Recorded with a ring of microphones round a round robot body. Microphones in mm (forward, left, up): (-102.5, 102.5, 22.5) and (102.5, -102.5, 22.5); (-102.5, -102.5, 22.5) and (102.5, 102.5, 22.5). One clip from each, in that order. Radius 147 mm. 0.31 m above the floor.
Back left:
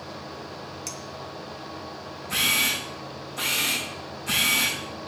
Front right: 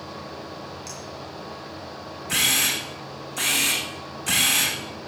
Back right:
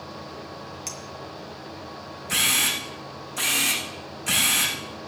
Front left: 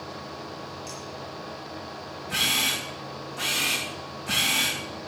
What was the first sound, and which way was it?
A clink, 170° right.